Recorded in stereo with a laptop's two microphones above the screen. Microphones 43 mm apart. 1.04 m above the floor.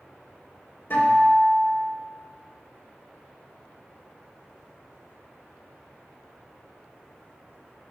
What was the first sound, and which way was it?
A guitar, 60° left (ahead or behind).